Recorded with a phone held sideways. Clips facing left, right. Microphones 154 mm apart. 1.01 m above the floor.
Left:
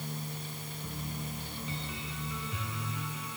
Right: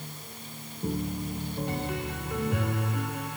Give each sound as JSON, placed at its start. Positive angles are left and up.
{"t": 0.8, "sound": "a piano", "side_deg": -60}